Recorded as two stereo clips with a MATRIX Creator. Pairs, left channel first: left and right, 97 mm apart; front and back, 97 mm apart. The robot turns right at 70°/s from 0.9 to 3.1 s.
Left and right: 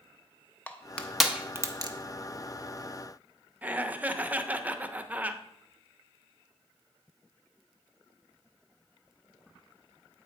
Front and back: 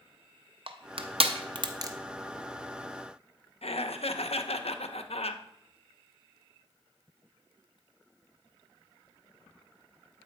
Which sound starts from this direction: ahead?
Laughter, at 3.6 s.